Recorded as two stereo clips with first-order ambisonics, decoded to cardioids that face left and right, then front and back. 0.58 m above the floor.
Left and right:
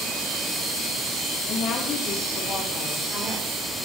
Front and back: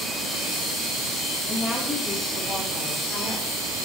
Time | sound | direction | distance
1.5 | a woman speaking | 80° left | 0.9 m